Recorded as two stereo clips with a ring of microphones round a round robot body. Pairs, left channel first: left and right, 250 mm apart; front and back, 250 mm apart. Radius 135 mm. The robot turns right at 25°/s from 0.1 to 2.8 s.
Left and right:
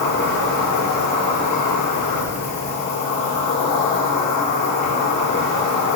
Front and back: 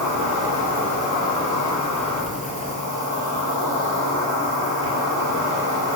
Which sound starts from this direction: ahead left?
An insect, at 0.0 s.